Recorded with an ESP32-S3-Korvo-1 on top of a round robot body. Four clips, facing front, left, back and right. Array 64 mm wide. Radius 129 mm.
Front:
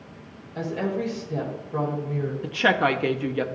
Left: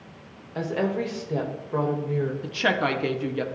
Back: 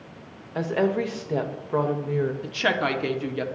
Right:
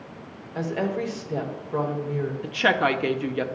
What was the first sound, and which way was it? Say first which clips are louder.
A woman speaking: left 1 dB, back 4 dB; straight behind.